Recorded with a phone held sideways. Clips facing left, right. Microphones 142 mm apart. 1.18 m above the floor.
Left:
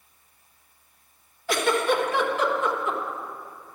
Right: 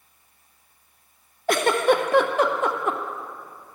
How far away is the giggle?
About 0.5 m.